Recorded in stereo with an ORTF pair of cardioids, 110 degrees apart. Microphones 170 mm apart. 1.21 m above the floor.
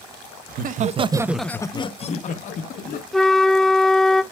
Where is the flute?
5° left, 0.7 m.